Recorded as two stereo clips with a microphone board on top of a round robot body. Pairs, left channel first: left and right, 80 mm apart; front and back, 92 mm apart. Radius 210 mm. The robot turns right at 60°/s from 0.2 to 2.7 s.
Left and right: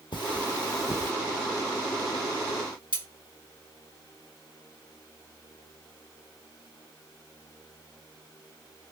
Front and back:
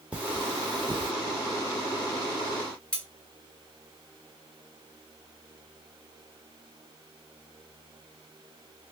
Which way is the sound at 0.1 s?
100° left.